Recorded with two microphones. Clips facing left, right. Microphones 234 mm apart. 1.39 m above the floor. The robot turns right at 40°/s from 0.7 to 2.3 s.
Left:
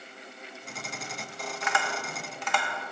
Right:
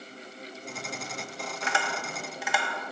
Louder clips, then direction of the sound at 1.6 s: Even; 35° right (ahead or behind).